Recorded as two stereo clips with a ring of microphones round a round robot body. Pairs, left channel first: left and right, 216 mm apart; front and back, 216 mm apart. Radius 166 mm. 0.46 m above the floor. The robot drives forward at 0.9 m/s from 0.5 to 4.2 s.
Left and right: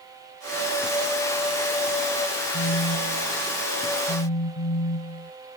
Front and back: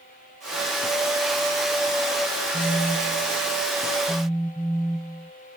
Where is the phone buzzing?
75° left; by 5.3 s 90° left.